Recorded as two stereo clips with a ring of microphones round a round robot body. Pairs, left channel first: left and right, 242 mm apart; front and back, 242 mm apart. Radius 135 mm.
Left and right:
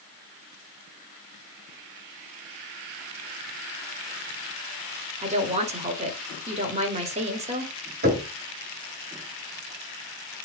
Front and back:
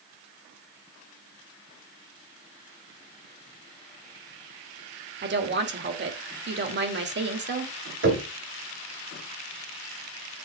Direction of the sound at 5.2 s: 150° right.